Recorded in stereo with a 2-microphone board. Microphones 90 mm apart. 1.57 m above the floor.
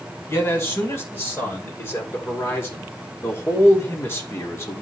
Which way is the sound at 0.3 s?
30° left (ahead or behind).